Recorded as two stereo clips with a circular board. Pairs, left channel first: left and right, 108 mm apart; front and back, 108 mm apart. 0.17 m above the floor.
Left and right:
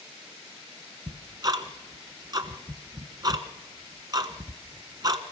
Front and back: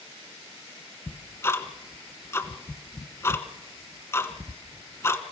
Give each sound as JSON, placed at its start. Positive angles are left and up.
{"t": 1.1, "sound": "ticking", "azimuth_deg": -55, "distance_m": 1.3}